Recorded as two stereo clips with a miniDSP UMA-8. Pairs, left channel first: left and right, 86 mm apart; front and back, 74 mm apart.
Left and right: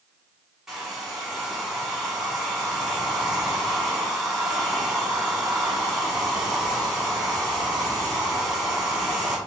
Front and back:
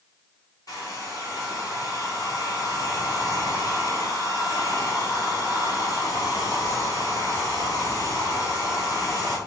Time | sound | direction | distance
0.7 | a hair dryer | 5° right | 1.5 m